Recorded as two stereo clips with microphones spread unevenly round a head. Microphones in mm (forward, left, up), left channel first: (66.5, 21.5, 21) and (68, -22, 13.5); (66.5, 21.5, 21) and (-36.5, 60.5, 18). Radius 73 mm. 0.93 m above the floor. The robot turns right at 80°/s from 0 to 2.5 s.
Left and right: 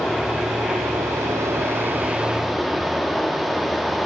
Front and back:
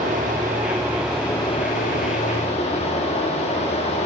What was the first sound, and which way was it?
Running water, 165° left.